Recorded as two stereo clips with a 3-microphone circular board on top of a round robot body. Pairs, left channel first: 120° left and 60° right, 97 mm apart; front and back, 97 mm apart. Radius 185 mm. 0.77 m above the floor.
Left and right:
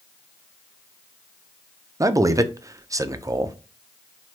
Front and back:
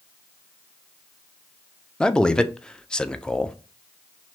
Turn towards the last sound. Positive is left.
turn(degrees=-75)